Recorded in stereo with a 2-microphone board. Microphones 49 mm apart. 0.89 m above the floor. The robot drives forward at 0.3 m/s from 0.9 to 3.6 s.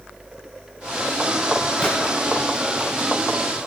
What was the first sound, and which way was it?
A gunshot, 20° left (ahead or behind).